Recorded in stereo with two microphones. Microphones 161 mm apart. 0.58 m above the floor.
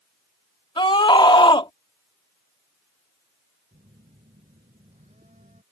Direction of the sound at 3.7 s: 50° right (ahead or behind).